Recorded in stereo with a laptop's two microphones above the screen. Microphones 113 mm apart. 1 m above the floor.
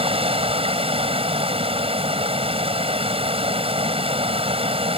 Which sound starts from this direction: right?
Running water, at 0.0 s.